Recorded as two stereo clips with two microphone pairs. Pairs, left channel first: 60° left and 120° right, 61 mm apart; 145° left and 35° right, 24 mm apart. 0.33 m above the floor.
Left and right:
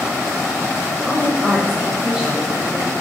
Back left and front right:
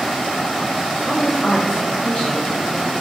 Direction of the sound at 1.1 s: 120° left.